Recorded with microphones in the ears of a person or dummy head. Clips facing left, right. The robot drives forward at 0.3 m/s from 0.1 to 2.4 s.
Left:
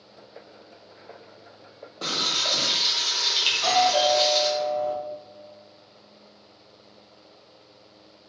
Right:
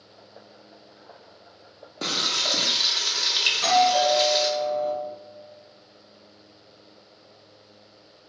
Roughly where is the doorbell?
Right.